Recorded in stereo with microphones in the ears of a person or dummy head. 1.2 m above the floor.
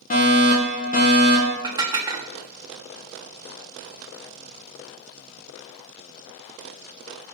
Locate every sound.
0.1 s a fire alarm: 35° left (ahead or behind), 1.9 m
1.6 s dishes clattering: 25° right (ahead or behind), 1.3 m